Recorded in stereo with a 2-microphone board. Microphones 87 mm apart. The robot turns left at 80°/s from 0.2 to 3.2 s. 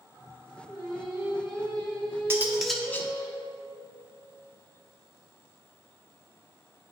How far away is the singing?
About 2.5 m.